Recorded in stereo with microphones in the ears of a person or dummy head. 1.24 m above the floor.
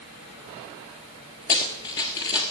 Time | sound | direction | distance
1.5 | running footsteps | 15° left (ahead or behind) | 1.3 m